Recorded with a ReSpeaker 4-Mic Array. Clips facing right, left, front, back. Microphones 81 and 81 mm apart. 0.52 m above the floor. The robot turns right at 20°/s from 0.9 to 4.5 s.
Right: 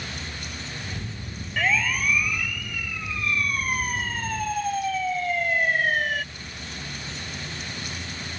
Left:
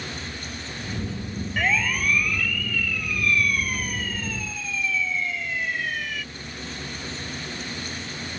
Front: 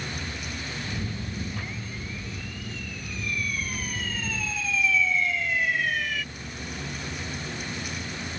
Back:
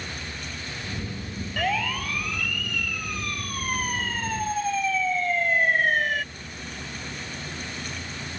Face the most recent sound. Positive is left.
turn(degrees=-135)